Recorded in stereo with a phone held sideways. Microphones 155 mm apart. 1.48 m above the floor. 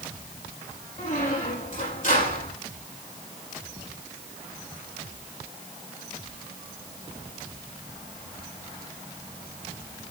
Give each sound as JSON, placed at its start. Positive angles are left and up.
{"t": 1.0, "sound": "a squeak", "side_deg": 55, "distance_m": 6.0}